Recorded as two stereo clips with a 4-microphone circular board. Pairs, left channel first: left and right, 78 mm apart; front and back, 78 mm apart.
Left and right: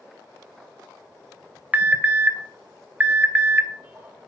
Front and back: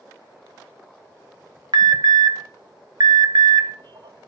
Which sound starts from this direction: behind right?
An alarm, at 1.7 s.